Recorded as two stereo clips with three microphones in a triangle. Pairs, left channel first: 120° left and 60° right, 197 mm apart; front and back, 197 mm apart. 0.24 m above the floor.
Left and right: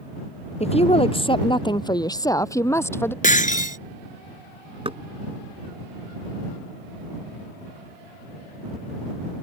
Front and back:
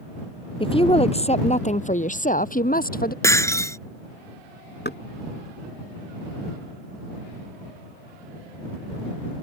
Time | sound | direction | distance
0.6 | a woman speaking | 65° left | ?
3.2 | breaking glass | 75° left | ?
4.8 | knocking | 5° right | ?